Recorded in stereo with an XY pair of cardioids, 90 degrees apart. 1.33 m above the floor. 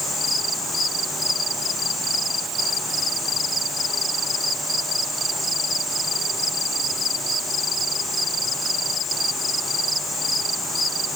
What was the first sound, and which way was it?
Only background noise.